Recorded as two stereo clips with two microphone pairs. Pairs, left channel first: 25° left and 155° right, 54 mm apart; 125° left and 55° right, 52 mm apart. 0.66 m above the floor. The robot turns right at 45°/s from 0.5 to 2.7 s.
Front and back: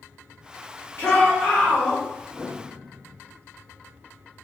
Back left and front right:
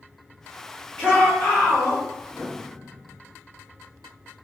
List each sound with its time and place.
1.0 s a shout: 55° left, 1.6 m; by 2.0 s 100° left, 1.6 m
2.3 s a piano: 40° left, 1.5 m; by 3.2 s 60° left, 1.5 m